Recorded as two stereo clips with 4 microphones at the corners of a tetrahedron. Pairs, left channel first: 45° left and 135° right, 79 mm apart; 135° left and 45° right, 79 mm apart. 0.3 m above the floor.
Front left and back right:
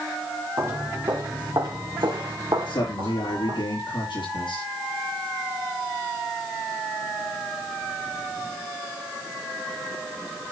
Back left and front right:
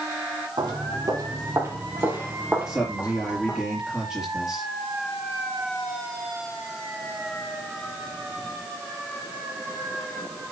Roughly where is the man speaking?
Ahead left.